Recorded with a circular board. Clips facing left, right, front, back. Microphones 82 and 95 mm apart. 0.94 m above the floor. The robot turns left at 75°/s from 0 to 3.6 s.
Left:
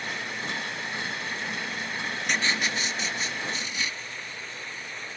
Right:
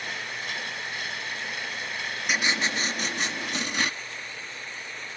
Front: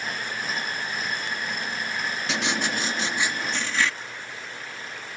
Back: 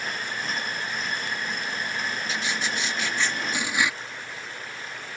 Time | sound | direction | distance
2.3 | writing | 5° right | ?